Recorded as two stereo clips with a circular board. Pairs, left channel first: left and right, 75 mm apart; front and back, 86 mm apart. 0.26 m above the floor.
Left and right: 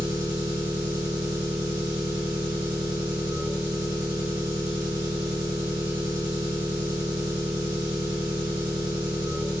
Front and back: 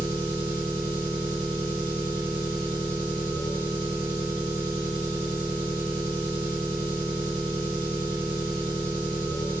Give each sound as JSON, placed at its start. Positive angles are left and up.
{"t": 0.0, "sound": "an engine running", "azimuth_deg": -40, "distance_m": 1.7}